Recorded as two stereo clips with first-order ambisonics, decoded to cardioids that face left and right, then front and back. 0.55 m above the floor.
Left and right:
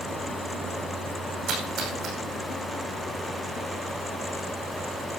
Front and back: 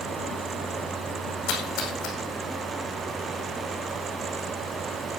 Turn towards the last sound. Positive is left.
turn(degrees=-40)